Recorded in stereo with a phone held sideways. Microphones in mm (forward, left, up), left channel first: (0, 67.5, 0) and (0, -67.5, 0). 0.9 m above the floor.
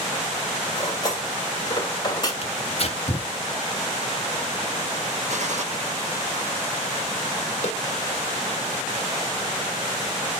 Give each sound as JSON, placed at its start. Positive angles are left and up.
{"t": 0.8, "sound": "cutlery clinking", "side_deg": 30, "distance_m": 2.0}
{"t": 2.4, "sound": "tearing paper", "side_deg": 45, "distance_m": 1.2}
{"t": 5.3, "sound": "a gunshot", "side_deg": -60, "distance_m": 1.4}
{"t": 7.6, "sound": "a snare drum", "side_deg": 50, "distance_m": 2.5}